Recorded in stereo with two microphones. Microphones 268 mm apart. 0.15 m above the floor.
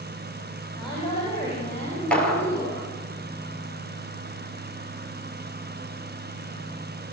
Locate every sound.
0.8 s a woman speaking: 20° left (ahead or behind), 6.5 m; by 2.9 s 25° left (ahead or behind), 8 m
2.1 s a clap: 5° left (ahead or behind), 3.5 m